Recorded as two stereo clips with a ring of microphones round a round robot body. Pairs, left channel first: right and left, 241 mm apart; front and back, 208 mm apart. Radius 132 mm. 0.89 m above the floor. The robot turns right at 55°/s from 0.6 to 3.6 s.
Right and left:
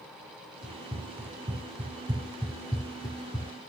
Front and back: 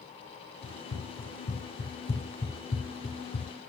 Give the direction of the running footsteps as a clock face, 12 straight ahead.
1 o'clock.